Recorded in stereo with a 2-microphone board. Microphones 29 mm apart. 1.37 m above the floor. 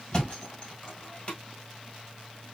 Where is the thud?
30° left (ahead or behind), 1.5 m.